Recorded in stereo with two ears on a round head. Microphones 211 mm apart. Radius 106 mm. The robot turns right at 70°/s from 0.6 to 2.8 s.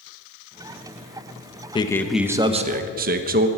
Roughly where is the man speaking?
Behind left.